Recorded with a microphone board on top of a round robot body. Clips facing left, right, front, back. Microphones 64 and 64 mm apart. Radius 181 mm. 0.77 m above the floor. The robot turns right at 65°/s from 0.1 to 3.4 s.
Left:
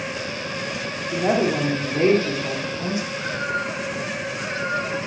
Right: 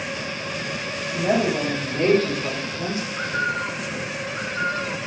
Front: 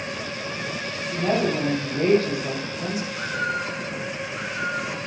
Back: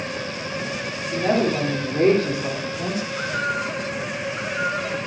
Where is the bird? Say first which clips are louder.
Right 1 dB, back 2 dB; 120° right, 2.5 m; by 5.0 s 105° right, 2.5 m.